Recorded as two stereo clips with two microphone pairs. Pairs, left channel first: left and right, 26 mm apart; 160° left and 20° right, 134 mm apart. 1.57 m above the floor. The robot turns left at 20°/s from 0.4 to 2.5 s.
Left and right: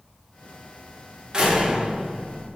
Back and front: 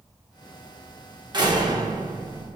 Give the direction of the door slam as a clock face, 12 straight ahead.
2 o'clock.